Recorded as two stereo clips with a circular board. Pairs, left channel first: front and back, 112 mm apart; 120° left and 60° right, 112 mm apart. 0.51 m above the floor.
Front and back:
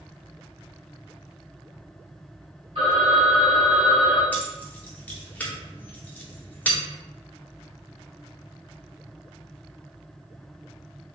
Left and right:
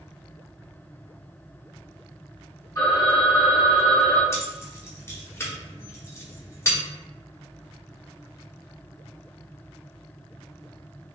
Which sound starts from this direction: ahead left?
Keys jangling, at 4.3 s.